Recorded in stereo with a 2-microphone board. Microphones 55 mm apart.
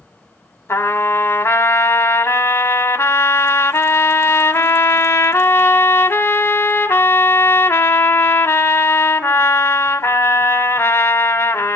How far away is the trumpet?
About 1.3 m.